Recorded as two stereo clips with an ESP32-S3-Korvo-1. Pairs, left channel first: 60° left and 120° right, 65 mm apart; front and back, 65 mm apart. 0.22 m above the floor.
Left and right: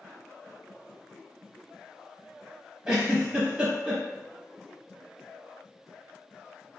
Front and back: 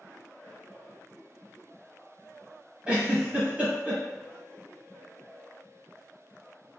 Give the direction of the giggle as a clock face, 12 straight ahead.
5 o'clock.